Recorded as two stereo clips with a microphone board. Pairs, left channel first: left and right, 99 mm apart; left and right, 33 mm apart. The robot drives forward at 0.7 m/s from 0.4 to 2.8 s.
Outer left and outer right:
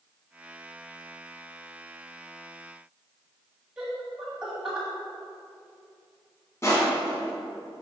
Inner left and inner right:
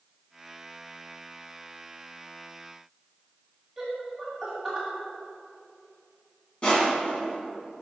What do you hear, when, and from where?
3.8 s laughter: 10° right (ahead or behind), 1.4 m
6.6 s crushing: 30° left (ahead or behind), 2 m